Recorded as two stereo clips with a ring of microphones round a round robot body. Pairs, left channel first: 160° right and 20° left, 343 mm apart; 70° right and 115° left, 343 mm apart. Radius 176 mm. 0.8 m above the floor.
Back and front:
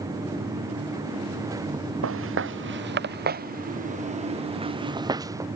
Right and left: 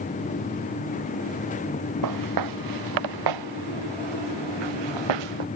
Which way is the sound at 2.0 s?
75° left.